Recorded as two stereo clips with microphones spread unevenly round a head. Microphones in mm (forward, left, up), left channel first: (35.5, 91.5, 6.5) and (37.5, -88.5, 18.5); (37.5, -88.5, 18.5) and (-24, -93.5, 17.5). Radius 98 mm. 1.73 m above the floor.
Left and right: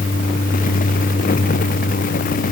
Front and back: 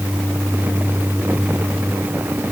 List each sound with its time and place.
Only background noise.